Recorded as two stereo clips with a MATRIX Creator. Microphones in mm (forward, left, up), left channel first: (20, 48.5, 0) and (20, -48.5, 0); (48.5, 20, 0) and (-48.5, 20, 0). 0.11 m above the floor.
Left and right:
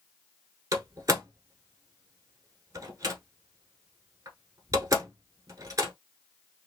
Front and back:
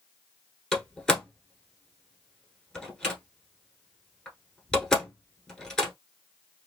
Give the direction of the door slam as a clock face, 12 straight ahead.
3 o'clock.